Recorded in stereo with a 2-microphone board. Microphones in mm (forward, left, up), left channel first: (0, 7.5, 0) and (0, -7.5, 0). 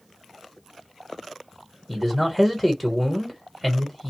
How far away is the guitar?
No guitar in this recording.